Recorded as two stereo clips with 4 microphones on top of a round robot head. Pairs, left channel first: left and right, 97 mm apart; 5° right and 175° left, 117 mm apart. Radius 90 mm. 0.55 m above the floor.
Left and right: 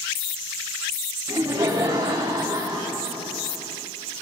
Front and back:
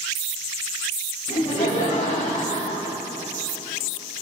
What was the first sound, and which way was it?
Laughter, 30° right.